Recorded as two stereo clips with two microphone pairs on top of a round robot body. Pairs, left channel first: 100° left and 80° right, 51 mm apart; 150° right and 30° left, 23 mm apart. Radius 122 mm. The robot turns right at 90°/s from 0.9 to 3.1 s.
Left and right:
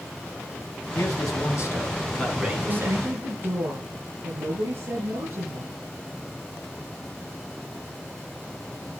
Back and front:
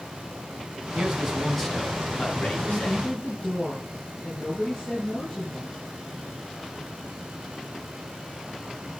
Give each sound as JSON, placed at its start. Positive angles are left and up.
{"t": 0.9, "sound": "a man speaking", "azimuth_deg": 70, "distance_m": 4.0}
{"t": 2.7, "sound": "a woman speaking", "azimuth_deg": -120, "distance_m": 5.5}